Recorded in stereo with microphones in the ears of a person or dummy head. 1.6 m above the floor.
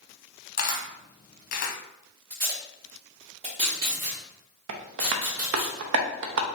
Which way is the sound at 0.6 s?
50° left (ahead or behind).